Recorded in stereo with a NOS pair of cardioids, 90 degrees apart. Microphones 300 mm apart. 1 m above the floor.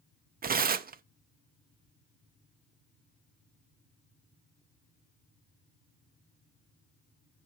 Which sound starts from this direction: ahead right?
Tearing paper, at 0.4 s.